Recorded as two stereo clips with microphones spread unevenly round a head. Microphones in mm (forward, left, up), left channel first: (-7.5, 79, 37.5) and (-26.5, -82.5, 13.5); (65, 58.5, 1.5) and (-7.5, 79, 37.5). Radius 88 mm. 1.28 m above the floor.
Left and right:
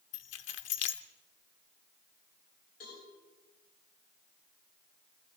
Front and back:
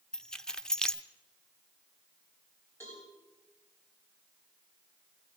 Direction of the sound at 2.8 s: 40° left.